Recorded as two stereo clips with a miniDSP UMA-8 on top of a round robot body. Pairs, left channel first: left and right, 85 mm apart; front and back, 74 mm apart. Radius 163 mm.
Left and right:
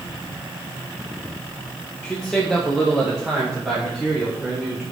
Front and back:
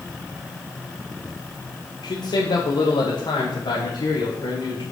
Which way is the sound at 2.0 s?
10° left.